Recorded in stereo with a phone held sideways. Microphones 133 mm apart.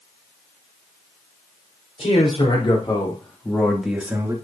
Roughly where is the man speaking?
Left.